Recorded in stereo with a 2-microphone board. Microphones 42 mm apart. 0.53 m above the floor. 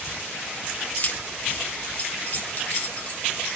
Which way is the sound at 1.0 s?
45° left (ahead or behind).